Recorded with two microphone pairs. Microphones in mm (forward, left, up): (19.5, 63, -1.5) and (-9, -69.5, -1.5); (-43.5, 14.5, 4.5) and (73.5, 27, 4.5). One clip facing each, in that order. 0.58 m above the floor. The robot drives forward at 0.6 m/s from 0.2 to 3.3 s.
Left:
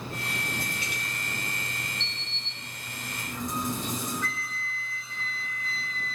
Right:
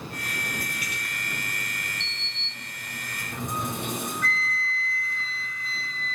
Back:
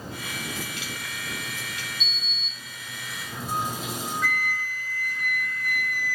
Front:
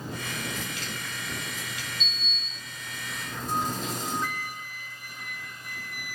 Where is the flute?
40° left, 0.8 m.